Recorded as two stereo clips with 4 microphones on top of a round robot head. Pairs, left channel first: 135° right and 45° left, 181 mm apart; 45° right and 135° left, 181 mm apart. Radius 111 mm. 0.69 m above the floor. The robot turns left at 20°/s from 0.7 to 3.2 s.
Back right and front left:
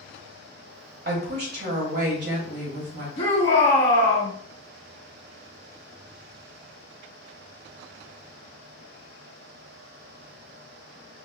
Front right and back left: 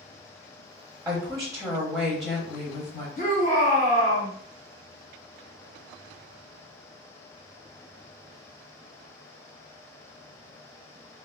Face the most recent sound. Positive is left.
turn(degrees=-85)